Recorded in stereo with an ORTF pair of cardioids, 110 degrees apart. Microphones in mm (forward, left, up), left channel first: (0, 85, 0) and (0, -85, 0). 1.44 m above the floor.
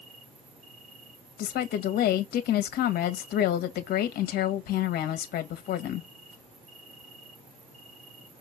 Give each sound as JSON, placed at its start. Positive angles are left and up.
{"t": 0.0, "sound": "an insect", "azimuth_deg": -45, "distance_m": 2.0}
{"t": 1.4, "sound": "a woman speaking", "azimuth_deg": 65, "distance_m": 1.7}